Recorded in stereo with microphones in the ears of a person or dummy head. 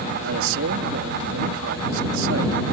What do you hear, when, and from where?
0.2 s a man speaking: 70° right (ahead or behind)